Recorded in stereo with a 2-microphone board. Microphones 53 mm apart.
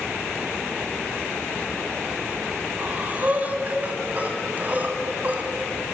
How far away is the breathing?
About 1.9 m.